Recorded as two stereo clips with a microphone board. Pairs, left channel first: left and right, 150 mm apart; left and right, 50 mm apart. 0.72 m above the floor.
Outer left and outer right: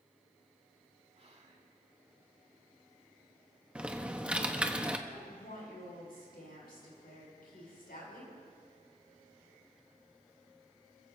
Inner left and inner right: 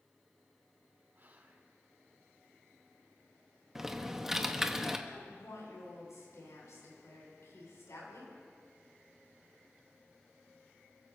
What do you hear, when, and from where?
1.1 s whispering: 45° right (ahead or behind), 2.5 m
3.8 s typing on a keyboard: 10° right (ahead or behind), 0.9 m
5.1 s a woman speaking: 80° left, 6.5 m